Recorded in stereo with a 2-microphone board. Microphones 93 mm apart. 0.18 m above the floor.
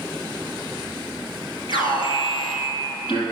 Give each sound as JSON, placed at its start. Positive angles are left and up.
{"t": 1.7, "sound": "an alarm", "side_deg": 65, "distance_m": 4.0}